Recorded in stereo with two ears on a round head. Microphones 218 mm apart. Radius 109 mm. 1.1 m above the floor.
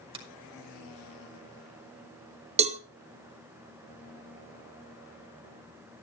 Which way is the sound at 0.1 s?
20° right (ahead or behind).